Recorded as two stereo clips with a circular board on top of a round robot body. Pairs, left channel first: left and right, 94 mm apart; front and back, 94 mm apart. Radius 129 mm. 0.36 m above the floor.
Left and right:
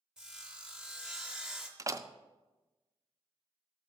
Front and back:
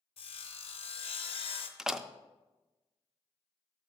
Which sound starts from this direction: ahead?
Sawing, at 0.2 s.